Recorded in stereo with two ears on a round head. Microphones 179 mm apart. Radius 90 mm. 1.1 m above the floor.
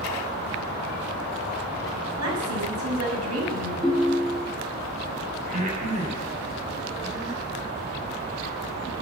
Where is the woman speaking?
85° right, 7 m.